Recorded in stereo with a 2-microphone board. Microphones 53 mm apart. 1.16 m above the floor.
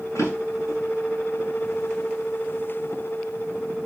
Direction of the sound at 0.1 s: 90° left.